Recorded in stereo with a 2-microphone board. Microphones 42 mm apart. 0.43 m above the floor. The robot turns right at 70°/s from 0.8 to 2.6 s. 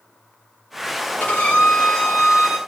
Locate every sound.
1.2 s a violin: 100° left, 1.7 m; by 2.6 s 160° right, 1.7 m